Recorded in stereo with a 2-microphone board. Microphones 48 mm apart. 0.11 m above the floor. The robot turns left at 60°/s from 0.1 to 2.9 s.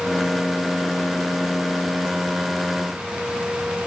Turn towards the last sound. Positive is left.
No sound to turn to.